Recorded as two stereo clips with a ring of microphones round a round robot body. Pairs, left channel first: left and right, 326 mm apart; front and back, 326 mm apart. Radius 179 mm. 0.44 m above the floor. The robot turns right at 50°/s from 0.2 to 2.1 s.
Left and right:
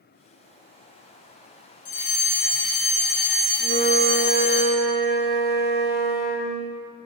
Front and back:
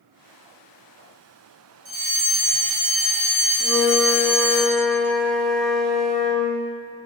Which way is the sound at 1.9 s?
110° left.